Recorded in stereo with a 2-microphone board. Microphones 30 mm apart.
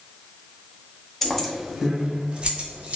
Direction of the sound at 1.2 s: 15° left (ahead or behind).